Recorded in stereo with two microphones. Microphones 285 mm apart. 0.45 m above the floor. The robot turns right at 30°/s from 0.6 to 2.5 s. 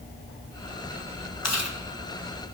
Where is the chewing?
70° left (ahead or behind), 2.5 m; by 1.8 s 65° left (ahead or behind), 2.5 m.